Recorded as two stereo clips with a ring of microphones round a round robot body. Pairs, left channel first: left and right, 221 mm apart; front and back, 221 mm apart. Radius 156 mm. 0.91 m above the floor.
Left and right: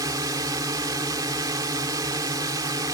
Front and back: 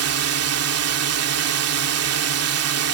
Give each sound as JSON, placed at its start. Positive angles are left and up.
{"t": 0.0, "sound": "a drone", "azimuth_deg": -170}